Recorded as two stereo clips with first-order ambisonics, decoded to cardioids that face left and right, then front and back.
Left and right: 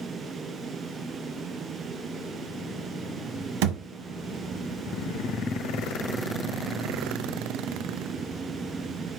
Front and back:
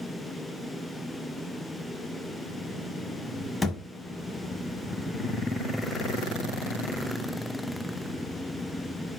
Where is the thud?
80° right, 1.5 m.